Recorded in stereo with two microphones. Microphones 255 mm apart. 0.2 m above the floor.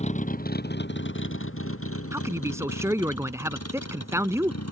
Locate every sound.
0.0 s a vehicle: 25° left (ahead or behind); by 4.7 s 80° left
2.1 s a man speaking: 10° right (ahead or behind)